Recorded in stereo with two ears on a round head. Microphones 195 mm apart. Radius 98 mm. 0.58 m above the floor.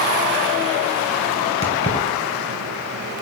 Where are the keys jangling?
30° left (ahead or behind), 1.9 m.